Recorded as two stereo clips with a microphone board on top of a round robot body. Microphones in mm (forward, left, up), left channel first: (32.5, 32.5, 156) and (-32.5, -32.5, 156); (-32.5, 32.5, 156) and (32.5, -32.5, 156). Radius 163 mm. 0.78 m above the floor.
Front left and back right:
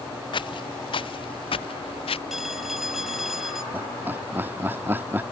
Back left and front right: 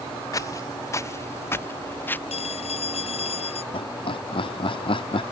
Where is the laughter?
155° left.